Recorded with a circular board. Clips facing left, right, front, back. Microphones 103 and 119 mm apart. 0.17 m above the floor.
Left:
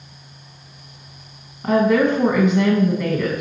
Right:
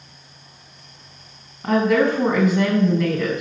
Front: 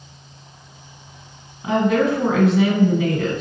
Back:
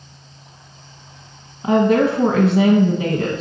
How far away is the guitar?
I don't hear a guitar.